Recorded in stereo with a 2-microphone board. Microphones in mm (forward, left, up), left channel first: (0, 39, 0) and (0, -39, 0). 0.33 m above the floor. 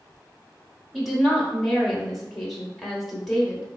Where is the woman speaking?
Centre (ahead or behind), 1.0 m.